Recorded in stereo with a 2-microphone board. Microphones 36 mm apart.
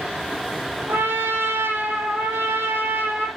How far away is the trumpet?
About 4 m.